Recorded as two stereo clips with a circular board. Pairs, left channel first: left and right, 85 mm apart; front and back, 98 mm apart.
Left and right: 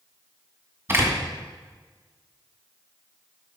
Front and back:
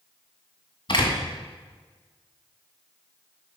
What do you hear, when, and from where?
0.9 s a door slam: 30° right, 2 m